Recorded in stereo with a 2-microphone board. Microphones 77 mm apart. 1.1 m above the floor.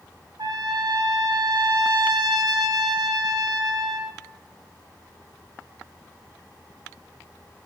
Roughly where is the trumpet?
Right.